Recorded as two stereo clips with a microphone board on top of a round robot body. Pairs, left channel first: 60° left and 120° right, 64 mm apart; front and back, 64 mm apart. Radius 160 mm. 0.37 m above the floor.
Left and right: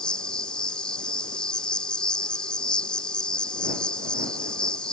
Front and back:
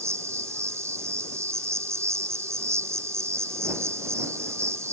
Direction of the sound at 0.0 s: 135° left.